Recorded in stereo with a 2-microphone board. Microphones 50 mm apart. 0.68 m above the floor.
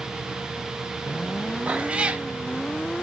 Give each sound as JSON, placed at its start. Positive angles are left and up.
{"t": 1.7, "sound": "a cat meowing", "side_deg": -20, "distance_m": 0.6}